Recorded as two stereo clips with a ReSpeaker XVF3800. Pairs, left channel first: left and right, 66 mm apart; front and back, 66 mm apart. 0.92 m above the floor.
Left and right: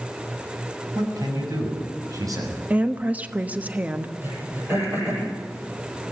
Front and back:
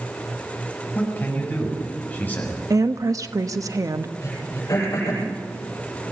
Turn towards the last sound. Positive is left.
turn(degrees=-35)